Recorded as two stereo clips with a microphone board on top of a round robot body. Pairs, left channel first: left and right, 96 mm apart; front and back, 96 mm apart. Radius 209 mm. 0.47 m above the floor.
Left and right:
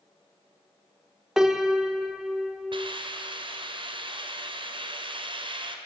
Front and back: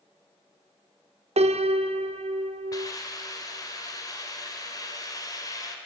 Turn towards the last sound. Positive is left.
turn(degrees=-55)